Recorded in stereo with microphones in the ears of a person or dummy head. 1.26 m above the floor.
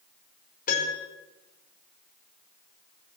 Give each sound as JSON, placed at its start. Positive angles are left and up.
{"t": 0.7, "sound": "a piano", "side_deg": 50, "distance_m": 5.5}